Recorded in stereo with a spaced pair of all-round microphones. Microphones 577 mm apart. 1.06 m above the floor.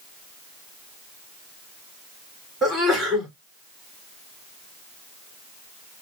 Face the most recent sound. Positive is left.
turn(degrees=0)  # may be behind; listen again after turning